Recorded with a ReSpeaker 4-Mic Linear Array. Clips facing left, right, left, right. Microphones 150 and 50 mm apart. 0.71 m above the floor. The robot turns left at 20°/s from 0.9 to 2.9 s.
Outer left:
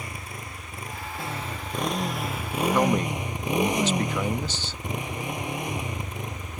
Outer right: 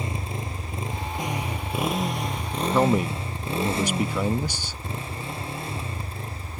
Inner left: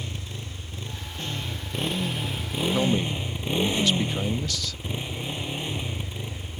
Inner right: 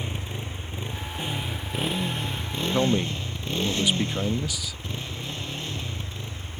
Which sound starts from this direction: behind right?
A motorcycle, at 0.0 s.